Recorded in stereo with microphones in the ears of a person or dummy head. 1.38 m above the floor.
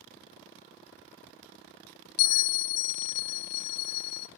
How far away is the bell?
About 0.6 m.